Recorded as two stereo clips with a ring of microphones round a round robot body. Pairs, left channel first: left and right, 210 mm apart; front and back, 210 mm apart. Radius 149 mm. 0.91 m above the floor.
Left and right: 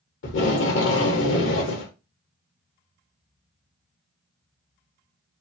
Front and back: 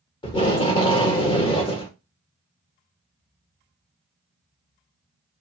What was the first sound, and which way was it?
Tape being pulled, 65° left.